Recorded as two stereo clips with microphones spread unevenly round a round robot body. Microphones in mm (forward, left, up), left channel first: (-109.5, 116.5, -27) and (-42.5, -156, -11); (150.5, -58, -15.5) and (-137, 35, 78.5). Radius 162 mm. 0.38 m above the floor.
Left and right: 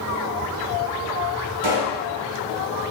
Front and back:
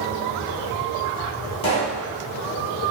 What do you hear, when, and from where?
1.6 s a pop: 80° right, 1.2 m